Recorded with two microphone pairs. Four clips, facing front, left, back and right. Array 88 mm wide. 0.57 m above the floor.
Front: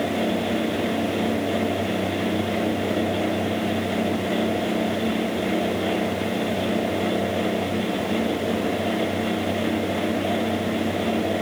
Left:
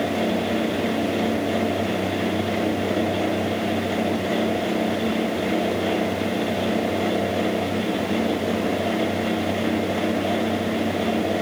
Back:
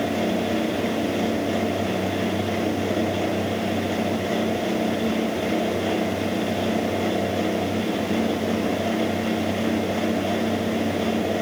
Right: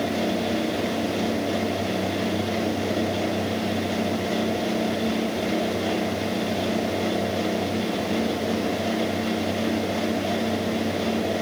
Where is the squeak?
I don't hear a squeak.